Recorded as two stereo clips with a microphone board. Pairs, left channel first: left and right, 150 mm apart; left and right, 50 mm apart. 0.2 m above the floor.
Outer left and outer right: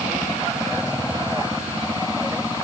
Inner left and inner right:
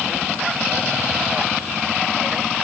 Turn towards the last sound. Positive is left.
No sound to turn to.